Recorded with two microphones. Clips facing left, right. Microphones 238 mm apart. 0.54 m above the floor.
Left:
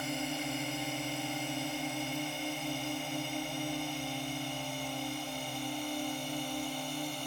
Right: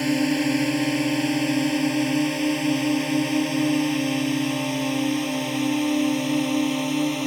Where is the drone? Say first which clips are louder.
Right 16 dB; 80° right; by 7.3 s 75° right (ahead or behind).